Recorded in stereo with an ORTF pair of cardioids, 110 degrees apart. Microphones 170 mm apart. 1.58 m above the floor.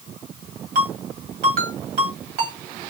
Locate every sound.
0.8 s a ringtone: 60° right, 2 m